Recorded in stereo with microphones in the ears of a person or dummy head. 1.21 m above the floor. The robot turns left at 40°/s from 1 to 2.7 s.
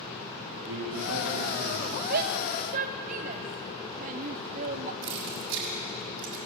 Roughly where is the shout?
Right.